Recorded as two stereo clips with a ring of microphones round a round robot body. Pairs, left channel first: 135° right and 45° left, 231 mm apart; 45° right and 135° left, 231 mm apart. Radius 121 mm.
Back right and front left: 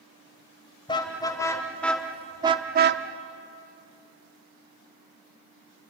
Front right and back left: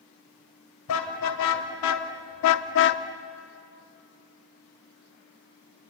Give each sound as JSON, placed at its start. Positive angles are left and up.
{"t": 0.9, "sound": "a car horn", "azimuth_deg": -65, "distance_m": 2.0}